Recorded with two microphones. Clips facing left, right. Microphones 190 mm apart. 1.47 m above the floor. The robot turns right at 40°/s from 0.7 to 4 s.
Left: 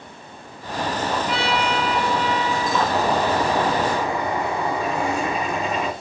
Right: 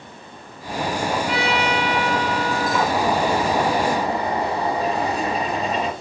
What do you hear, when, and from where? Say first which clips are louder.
1.3 s a trumpet: right 1 dB; 125° right, 4 m; by 2.8 s 60° right, 4 m
2.9 s a bird: even; 170° right, 1.8 m; by 5.9 s 125° right, 1.8 m